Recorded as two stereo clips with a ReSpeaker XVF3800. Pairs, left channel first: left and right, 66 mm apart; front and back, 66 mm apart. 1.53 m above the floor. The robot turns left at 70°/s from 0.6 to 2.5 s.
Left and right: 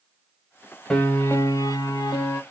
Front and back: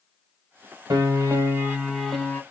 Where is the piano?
170° left, 0.8 m; by 2.4 s 65° left, 0.8 m.